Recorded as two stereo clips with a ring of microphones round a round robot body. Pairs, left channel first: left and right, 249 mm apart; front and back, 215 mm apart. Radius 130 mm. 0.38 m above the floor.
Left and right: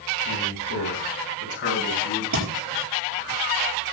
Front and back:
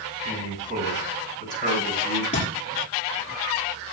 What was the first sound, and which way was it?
A man speaking, 125° left.